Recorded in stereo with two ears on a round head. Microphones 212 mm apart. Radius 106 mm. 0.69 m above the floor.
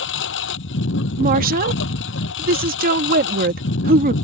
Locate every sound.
0.0 s a lawn mower: 55° left (ahead or behind)
1.2 s a woman speaking: 40° right (ahead or behind)